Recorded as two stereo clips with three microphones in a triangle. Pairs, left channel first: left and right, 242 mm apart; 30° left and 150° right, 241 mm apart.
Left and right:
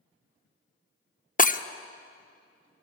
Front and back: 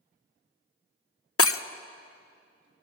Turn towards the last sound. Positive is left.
turn(degrees=40)